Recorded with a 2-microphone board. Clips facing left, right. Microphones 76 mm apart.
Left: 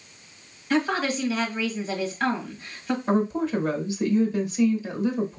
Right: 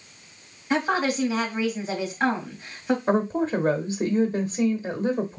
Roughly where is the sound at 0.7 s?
Centre.